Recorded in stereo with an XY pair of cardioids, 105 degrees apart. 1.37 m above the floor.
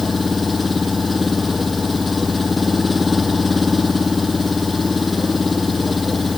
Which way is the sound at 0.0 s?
25° left.